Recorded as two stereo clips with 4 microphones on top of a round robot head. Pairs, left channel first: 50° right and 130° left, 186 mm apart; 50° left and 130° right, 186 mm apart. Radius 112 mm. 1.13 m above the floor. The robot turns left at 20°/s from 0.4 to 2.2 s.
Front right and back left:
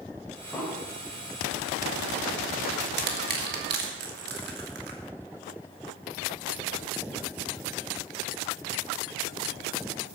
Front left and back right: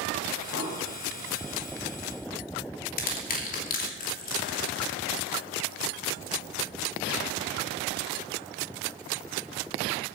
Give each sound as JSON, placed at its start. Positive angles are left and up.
{"t": 0.5, "sound": "an explosion", "azimuth_deg": 35, "distance_m": 4.5}
{"t": 3.0, "sound": "crushing", "azimuth_deg": 95, "distance_m": 2.5}